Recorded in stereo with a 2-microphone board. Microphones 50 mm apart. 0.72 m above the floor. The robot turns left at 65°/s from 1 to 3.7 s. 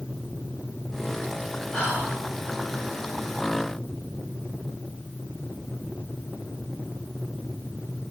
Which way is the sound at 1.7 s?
155° left.